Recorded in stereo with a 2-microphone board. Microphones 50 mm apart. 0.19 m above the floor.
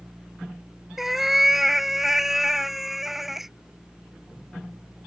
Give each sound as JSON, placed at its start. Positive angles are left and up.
{"t": 1.0, "sound": "a cat meowing", "side_deg": -5}